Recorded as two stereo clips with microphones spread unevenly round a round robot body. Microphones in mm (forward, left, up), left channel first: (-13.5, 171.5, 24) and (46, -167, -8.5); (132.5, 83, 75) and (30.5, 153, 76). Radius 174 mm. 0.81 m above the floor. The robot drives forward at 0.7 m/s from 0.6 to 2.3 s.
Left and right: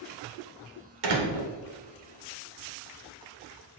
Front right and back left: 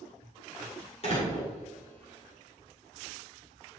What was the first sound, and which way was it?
A door slam, 90° right.